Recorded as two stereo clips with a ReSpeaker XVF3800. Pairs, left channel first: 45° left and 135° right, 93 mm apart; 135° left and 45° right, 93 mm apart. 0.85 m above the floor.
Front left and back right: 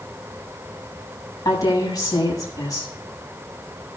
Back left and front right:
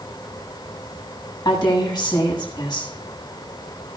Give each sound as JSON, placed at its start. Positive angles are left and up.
{"t": 1.4, "sound": "a woman speaking", "azimuth_deg": 95, "distance_m": 7.5}